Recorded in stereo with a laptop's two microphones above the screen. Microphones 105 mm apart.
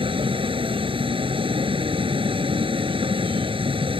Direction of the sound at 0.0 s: 60° right (ahead or behind).